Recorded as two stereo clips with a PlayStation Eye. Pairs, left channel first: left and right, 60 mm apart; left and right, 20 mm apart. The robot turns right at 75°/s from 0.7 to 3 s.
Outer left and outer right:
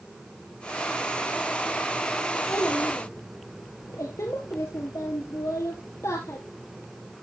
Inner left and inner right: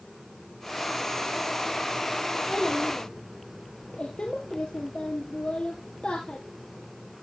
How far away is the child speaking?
About 1.5 m.